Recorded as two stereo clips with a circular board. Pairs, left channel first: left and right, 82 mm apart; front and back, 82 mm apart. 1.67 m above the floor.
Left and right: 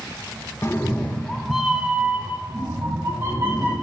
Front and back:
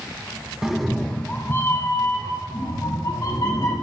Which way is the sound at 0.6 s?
100° left.